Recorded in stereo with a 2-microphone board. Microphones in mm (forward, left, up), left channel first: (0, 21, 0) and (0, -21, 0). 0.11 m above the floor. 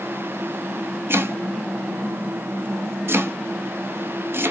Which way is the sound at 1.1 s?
55° right (ahead or behind).